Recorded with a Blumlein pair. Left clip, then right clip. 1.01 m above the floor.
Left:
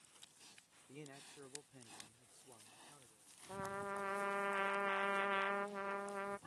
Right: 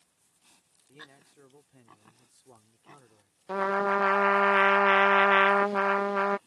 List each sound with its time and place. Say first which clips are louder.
0.9 s a man speaking: right 4 dB; 5° left; by 3.4 s 35° right
3.5 s a trumpet: right 18 dB; 50° right